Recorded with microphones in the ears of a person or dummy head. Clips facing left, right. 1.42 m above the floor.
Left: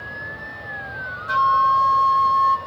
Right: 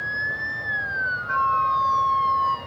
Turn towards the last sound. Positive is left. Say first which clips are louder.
# left 5 dB
turn(degrees=45)  # may be behind; listen again after turning